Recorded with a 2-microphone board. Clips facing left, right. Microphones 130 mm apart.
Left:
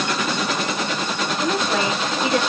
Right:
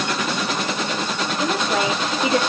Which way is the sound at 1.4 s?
Centre (ahead or behind).